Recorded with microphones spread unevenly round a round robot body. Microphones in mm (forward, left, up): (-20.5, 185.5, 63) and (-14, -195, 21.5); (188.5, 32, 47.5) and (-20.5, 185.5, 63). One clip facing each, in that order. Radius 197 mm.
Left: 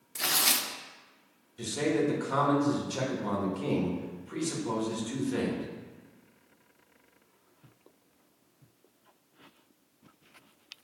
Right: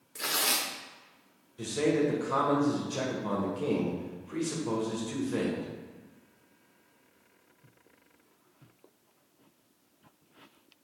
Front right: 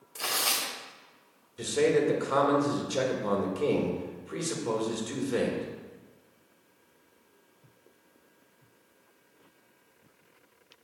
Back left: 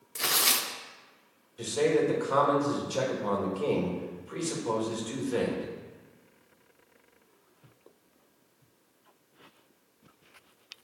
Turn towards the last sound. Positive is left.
turn(degrees=15)